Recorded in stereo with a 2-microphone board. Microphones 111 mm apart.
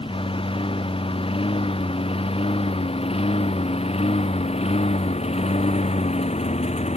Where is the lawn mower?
55° left (ahead or behind); by 7.0 s 80° left.